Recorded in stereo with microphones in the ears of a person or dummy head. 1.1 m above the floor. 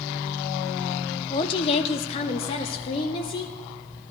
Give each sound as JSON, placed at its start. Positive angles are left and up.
{"t": 1.3, "sound": "a woman speaking", "side_deg": 25, "distance_m": 0.6}